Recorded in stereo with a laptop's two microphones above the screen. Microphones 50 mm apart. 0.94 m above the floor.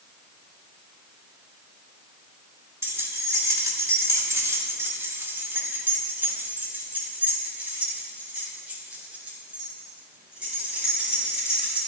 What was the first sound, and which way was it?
Keys jangling, 60° right (ahead or behind).